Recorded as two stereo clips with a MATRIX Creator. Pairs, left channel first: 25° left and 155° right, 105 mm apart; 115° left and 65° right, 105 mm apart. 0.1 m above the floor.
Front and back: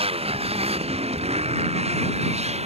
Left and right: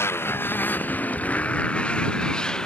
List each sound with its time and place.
0.0 s a motorcycle: straight behind; by 2.7 s 165° right